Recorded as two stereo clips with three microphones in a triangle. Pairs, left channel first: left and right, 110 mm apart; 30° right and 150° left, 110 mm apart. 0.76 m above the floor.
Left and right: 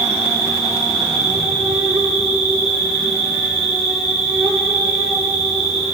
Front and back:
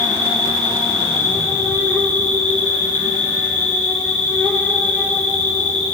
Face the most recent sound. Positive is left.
turn(degrees=-110)